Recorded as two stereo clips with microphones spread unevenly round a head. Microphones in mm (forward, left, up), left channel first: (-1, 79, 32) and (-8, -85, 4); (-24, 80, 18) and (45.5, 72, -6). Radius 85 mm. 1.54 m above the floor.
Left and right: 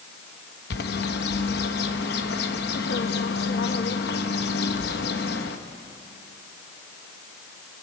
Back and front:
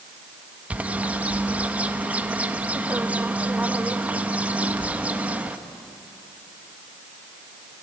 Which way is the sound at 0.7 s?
75° left.